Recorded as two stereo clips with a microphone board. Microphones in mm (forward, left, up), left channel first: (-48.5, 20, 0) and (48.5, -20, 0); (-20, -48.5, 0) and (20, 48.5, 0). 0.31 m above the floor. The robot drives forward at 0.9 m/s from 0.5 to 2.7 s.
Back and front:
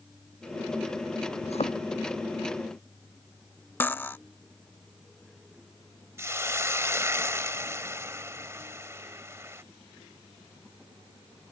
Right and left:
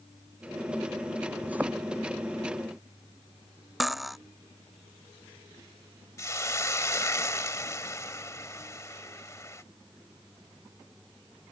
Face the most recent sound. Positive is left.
turn(degrees=-70)